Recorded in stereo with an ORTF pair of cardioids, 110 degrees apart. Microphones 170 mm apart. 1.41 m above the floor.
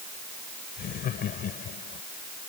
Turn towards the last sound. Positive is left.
turn(degrees=55)